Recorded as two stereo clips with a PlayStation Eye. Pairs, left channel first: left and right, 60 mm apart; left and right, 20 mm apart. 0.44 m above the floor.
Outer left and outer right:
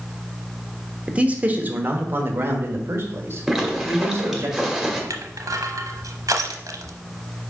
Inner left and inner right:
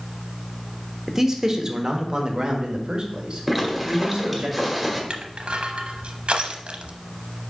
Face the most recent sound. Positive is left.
turn(degrees=-80)